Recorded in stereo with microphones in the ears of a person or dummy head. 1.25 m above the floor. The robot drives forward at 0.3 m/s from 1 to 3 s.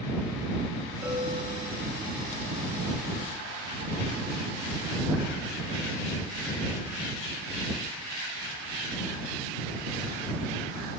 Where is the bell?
25° right (ahead or behind), 7 m.